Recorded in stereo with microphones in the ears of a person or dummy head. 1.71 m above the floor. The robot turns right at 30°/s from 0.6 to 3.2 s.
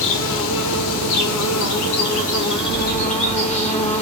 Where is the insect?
70° left, 0.9 m; by 4.0 s 145° left, 0.9 m.